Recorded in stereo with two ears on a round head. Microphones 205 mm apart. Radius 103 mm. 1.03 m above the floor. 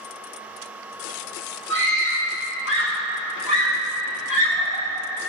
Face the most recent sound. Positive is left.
turn(degrees=55)  # may be behind; listen again after turning